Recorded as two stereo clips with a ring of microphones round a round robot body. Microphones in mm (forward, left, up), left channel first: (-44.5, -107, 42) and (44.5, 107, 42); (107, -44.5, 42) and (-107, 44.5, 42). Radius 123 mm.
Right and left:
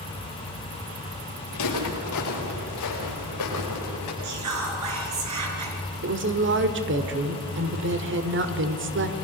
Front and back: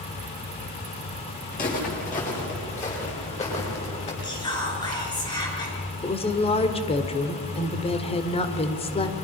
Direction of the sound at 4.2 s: 50° left.